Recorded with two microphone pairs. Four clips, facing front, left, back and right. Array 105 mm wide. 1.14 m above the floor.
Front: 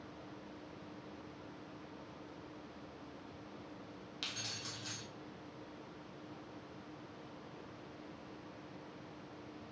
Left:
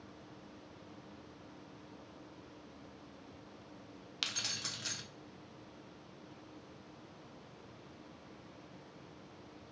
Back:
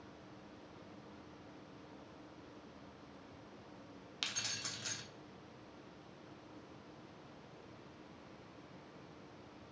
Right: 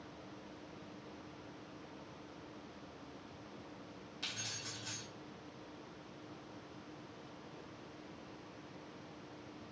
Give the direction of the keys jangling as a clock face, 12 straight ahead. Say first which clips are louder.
Left 4 dB, back 2 dB; 8 o'clock.